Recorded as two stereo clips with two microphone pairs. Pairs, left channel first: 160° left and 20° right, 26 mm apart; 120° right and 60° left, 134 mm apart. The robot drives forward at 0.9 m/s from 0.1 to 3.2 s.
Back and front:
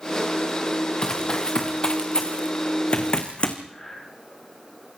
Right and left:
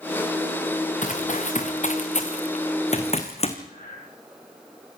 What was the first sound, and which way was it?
Running footsteps, 145° right.